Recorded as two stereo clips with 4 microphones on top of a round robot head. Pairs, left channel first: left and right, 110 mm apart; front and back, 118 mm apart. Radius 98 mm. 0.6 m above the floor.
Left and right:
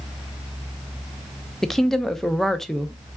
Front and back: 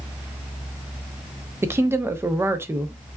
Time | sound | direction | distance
1.6 | a woman speaking | 170° left | 0.5 m